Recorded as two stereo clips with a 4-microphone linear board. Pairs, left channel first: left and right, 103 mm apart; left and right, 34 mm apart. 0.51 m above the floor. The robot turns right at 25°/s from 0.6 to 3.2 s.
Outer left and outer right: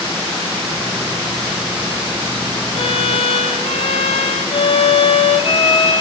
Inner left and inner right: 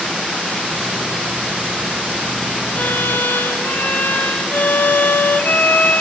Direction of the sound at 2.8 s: 70° left (ahead or behind).